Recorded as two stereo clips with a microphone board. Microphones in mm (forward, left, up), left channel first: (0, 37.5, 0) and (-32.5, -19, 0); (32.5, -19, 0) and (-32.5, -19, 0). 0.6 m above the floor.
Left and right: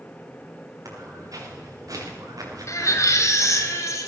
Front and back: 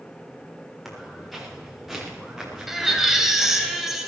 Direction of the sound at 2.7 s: 95° left.